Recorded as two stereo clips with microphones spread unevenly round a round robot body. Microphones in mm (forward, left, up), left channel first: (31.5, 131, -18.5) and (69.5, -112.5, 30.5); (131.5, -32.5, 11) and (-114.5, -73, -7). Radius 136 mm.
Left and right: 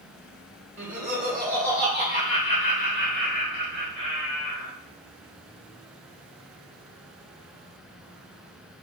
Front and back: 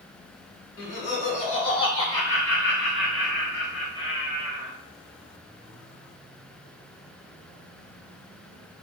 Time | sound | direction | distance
0.8 | laughter | 15° left | 1.4 m